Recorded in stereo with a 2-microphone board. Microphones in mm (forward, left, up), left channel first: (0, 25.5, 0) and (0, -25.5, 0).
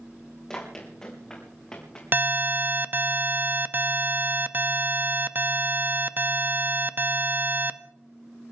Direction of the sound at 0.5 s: 15° left (ahead or behind).